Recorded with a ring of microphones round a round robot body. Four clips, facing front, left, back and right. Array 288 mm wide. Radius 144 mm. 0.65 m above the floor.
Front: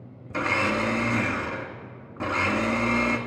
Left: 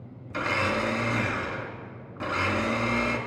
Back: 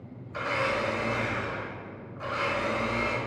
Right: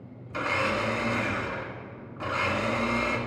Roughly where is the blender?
Ahead.